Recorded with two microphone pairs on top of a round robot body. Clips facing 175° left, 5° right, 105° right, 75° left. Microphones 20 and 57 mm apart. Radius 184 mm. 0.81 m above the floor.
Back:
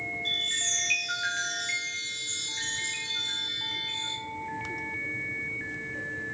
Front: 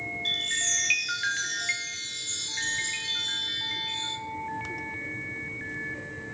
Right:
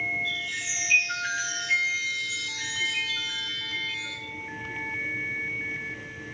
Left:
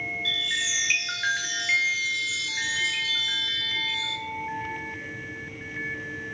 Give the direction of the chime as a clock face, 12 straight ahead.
10 o'clock.